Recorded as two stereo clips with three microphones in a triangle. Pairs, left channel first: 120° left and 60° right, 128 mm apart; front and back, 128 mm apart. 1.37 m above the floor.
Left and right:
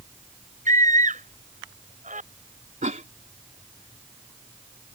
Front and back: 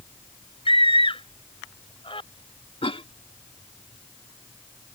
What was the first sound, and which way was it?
A scream, 45° right.